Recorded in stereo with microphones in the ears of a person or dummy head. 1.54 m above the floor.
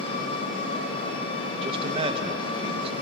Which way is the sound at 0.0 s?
35° left (ahead or behind).